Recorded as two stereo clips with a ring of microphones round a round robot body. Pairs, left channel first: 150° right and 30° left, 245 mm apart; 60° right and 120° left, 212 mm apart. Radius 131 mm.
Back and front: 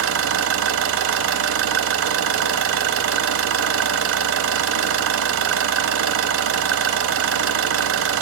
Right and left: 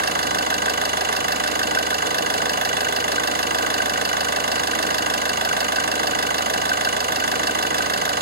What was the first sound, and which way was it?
An engine running, 70° left.